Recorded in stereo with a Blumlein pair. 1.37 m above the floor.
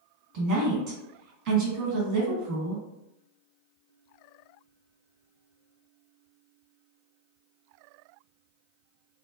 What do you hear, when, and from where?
0.3 s a woman speaking: 45° right, 1.5 m